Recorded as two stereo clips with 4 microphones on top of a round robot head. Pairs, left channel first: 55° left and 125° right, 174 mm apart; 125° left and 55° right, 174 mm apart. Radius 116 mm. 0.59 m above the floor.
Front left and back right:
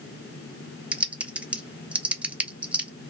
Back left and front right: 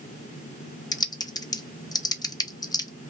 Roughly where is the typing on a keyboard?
Behind.